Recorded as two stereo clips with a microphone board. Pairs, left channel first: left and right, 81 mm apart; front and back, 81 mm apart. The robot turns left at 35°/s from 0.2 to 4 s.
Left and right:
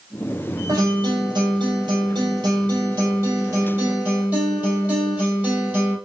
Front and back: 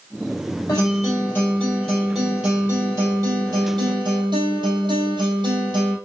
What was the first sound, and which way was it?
A guitar, 45° right.